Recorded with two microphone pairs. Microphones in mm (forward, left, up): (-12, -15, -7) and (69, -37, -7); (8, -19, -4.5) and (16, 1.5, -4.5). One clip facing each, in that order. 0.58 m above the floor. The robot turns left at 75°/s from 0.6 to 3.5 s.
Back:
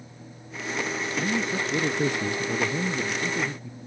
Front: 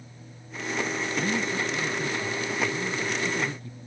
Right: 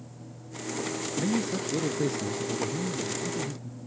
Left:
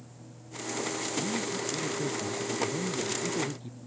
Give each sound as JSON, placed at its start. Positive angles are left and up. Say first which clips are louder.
{"t": 1.2, "sound": "a man speaking", "louder": "back 1 dB, right 6 dB", "azimuth_deg": -105}